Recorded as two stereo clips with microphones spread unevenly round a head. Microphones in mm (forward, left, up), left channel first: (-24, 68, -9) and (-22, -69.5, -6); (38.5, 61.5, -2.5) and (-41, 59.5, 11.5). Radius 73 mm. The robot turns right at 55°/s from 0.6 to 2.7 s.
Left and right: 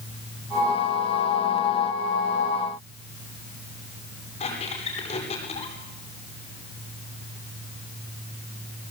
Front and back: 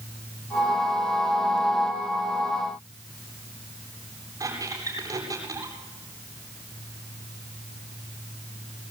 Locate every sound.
4.4 s a squeak: 135° left, 9 m